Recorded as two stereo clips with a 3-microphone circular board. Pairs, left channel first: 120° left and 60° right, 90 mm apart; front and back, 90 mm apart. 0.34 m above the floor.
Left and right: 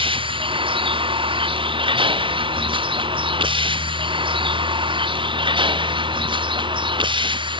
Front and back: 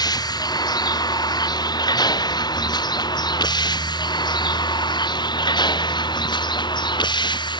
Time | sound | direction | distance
0.0 | a vehicle | 40° right | ?